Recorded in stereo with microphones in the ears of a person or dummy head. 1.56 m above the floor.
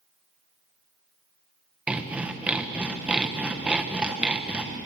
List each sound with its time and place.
1.9 s sawing: 5° right (ahead or behind), 1.3 m